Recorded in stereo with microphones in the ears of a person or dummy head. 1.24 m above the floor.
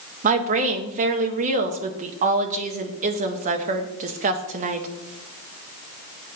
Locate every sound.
0.2 s a woman speaking: 35° right (ahead or behind), 0.7 m